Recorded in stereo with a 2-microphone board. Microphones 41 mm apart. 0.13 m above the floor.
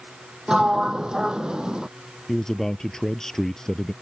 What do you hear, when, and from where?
0.5 s a sliding door: 15° right (ahead or behind)
2.3 s a man speaking: 15° left (ahead or behind)